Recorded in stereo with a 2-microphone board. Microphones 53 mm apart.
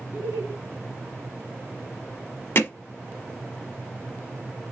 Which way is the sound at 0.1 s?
45° right (ahead or behind).